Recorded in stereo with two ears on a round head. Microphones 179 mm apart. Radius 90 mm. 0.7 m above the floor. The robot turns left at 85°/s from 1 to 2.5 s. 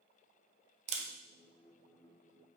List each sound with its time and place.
0.9 s a camera shutter: 35° right (ahead or behind), 0.5 m; by 1.1 s 30° right (ahead or behind), 0.5 m